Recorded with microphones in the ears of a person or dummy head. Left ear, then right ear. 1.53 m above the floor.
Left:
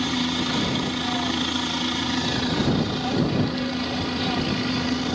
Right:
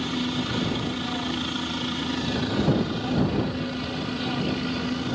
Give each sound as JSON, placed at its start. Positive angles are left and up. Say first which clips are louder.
{"t": 0.0, "sound": "a helicopter", "louder": "left 4 dB", "side_deg": 15}